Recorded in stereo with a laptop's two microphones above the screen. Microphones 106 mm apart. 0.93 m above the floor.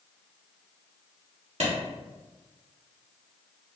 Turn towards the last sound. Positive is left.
turn(degrees=-70)  # may be behind; listen again after turning